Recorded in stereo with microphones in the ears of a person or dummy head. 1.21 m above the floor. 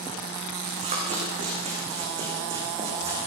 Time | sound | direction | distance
0.6 | running footsteps | 45° right (ahead or behind) | 5 m